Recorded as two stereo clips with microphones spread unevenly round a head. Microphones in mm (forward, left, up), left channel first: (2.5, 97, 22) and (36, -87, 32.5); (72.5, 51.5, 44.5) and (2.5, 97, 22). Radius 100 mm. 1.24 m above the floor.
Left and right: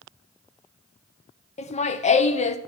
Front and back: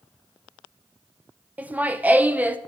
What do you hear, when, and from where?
1.6 s laughter: 110° left, 0.6 m